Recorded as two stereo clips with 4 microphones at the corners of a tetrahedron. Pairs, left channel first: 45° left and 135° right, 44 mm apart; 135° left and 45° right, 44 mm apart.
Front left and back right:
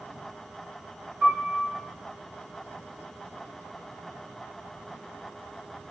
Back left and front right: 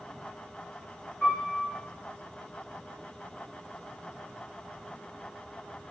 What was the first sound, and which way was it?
A piano, 175° left.